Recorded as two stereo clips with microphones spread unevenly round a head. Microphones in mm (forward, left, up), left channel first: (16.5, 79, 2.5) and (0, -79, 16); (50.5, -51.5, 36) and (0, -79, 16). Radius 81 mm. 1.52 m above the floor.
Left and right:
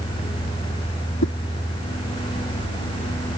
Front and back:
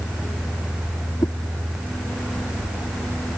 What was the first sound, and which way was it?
A whoosh, 75° left.